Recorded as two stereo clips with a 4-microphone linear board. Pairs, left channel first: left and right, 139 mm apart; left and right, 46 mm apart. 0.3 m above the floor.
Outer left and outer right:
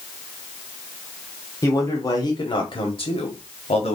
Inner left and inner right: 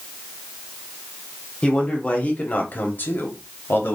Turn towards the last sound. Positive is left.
turn(degrees=45)  # may be behind; listen again after turning